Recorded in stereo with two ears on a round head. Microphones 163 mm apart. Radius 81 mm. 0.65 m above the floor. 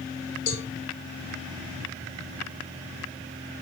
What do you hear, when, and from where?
0.5 s a cowbell: 60° left (ahead or behind), 1.5 m